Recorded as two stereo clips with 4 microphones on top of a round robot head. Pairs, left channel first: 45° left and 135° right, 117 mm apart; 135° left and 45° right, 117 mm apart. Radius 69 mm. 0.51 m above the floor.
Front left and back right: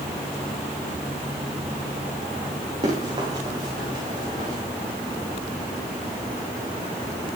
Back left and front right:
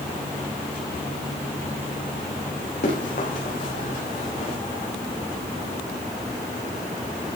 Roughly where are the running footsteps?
Behind.